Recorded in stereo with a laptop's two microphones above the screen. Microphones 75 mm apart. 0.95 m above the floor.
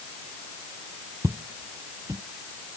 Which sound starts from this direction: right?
Footsteps, at 1.2 s.